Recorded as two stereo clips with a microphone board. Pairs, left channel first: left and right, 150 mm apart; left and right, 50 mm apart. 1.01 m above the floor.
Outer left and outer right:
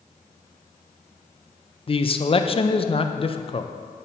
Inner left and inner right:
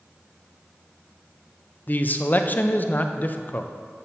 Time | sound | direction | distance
1.9 | a man speaking | 40° left (ahead or behind) | 0.5 m